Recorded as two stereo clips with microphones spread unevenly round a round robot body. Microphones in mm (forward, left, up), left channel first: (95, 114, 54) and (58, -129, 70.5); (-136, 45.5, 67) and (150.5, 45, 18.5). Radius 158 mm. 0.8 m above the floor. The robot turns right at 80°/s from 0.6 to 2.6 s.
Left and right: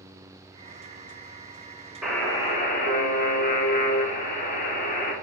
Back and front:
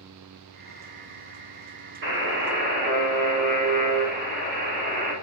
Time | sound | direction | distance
2.0 | a buzzer | 10° right | 1.2 m